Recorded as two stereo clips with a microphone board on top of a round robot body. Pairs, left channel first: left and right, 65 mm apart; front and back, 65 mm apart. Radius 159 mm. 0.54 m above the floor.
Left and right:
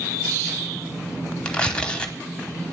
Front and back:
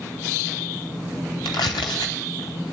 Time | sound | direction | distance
1.4 | tearing paper | 15° left | 0.7 m